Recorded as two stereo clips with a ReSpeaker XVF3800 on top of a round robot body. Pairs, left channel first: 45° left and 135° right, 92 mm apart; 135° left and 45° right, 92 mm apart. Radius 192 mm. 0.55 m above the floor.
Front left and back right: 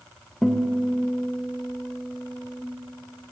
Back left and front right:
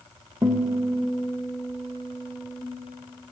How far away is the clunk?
I don't hear a clunk.